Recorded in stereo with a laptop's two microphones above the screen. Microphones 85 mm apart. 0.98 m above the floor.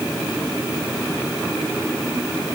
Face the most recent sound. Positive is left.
No sound to turn to.